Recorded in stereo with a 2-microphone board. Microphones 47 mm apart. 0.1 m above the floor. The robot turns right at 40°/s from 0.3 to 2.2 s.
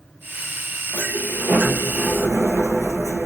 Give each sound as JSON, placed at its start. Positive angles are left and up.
{"t": 0.9, "sound": "a sliding door", "azimuth_deg": -135, "distance_m": 1.6}